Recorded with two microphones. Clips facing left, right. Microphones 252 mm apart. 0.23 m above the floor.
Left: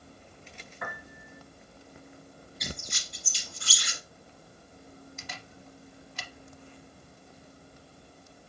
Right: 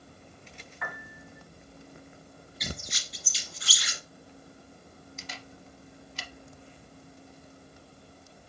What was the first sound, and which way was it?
A piano, 45° left (ahead or behind).